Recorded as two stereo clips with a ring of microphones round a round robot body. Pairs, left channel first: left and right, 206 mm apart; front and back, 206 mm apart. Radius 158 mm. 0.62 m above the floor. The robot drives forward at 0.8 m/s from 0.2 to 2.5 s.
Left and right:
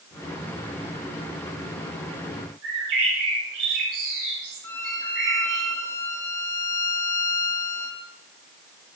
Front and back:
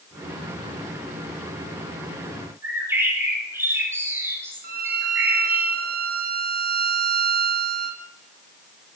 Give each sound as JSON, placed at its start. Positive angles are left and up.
{"t": 2.6, "sound": "a bird", "azimuth_deg": -105, "distance_m": 9.0}
{"t": 4.6, "sound": "a violin", "azimuth_deg": 165, "distance_m": 1.0}